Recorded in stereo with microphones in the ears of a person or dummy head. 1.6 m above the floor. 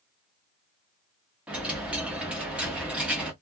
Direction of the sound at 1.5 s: 15° right (ahead or behind).